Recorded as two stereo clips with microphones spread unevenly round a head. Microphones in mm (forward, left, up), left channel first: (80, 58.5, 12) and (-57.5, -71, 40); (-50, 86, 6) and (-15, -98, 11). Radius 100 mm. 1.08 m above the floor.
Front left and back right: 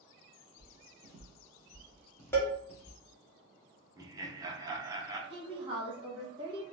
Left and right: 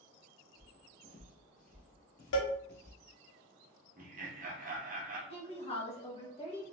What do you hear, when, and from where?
0.6 s footsteps: 145° left, 1.3 m; by 3.0 s 80° left, 1.6 m
2.3 s a cowbell: 120° left, 1.0 m
4.0 s laughter: 65° right, 0.8 m
5.3 s a woman speaking: 155° left, 1.4 m